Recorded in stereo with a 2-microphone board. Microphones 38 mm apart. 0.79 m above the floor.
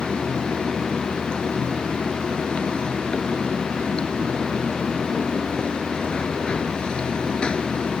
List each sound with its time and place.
0.0 s running water: 30° left (ahead or behind)